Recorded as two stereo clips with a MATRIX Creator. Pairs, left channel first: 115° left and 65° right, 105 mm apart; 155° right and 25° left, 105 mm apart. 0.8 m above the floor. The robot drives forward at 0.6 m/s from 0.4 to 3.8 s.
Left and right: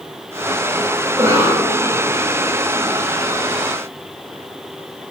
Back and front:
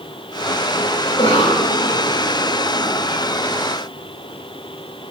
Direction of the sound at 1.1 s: 130° right.